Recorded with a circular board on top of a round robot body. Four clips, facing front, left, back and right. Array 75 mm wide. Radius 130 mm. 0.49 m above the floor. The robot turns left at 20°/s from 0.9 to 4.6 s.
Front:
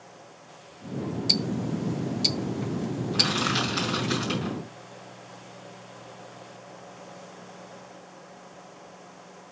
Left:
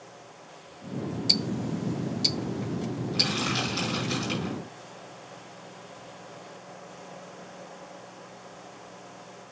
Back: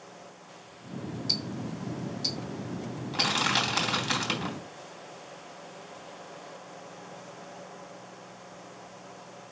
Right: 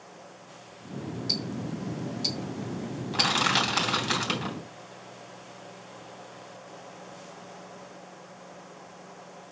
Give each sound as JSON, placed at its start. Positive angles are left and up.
{"t": 1.3, "sound": "ticking", "azimuth_deg": 45, "distance_m": 0.6}
{"t": 3.1, "sound": "crushing", "azimuth_deg": -115, "distance_m": 3.5}